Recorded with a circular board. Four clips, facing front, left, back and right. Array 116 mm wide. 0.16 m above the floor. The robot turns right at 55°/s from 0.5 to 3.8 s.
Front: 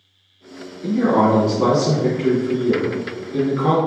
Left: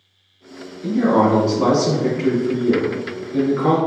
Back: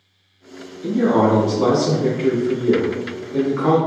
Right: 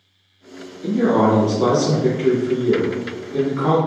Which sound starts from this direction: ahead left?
A man speaking, at 0.8 s.